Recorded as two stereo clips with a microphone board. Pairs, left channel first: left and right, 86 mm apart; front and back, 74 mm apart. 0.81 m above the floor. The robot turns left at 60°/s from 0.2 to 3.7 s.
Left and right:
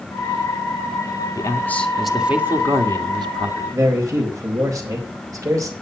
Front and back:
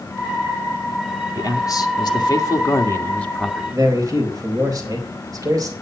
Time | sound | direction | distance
1.4 | a man speaking | 40° left | 1.9 m
3.7 | a man speaking | 140° right | 4 m